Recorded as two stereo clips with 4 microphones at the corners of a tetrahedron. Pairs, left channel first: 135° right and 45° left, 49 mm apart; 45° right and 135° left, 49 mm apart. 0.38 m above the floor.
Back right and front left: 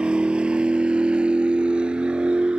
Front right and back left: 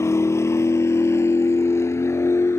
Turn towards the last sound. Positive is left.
turn(degrees=-25)